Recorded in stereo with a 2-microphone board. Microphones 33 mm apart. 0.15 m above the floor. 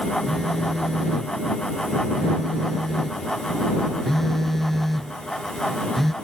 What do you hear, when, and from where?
0.3 s a phone buzzing: 10° left (ahead or behind)